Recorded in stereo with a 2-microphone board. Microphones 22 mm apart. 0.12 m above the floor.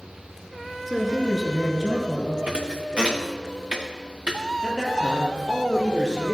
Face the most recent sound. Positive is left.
turn(degrees=35)  # may be behind; listen again after turning